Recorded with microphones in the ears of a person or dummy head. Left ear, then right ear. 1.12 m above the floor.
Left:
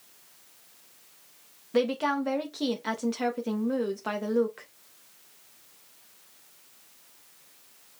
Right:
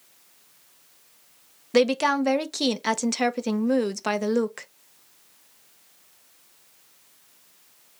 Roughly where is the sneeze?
No sneeze in this recording.